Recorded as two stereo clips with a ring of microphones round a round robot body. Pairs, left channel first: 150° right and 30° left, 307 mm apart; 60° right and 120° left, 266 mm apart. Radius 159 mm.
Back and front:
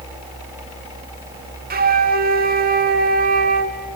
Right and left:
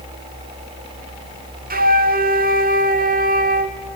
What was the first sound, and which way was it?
A flute, 80° left.